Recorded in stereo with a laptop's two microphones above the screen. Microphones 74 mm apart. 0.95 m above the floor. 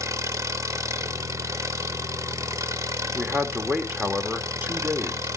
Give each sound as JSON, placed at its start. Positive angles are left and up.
{"t": 0.0, "sound": "an engine running", "side_deg": -45, "distance_m": 0.8}
{"t": 3.1, "sound": "a man speaking", "side_deg": -20, "distance_m": 1.7}